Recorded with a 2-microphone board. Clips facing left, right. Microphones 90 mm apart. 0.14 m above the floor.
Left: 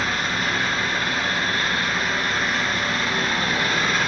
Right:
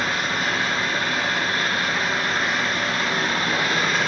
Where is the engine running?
25° right (ahead or behind), 1.4 m.